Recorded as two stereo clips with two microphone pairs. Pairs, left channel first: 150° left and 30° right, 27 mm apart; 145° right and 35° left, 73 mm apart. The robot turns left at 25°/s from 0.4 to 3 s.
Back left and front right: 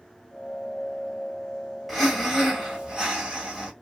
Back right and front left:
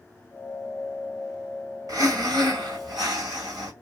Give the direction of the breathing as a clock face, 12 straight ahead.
10 o'clock.